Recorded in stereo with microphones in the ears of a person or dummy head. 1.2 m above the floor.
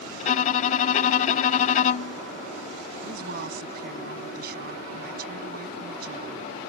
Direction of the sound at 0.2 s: 45° left (ahead or behind).